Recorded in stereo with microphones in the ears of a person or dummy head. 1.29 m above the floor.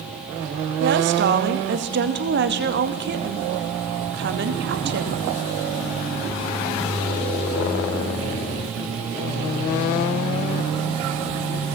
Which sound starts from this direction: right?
A woman speaking, at 0.8 s.